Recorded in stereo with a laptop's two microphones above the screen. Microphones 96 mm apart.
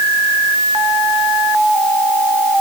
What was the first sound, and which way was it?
Only background noise.